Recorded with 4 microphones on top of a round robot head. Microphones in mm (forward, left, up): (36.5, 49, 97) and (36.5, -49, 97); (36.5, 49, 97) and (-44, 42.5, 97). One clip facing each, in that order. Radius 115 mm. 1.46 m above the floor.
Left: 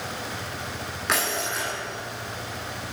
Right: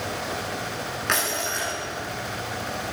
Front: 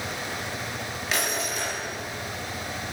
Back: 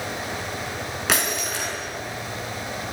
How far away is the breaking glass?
About 9.5 m.